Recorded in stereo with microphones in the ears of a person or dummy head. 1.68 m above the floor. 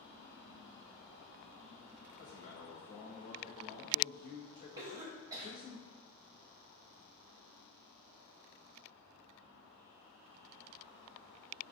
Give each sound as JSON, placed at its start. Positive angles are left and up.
{"t": 2.2, "sound": "a man speaking", "side_deg": 35, "distance_m": 1.7}
{"t": 4.8, "sound": "a cough", "side_deg": -15, "distance_m": 1.1}